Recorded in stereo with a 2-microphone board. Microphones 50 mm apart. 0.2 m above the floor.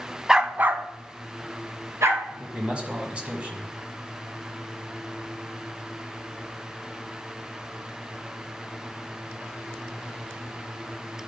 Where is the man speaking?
20° right (ahead or behind), 1.6 m.